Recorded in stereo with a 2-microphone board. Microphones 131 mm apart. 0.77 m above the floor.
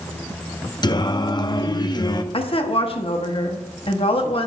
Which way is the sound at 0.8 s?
35° left (ahead or behind).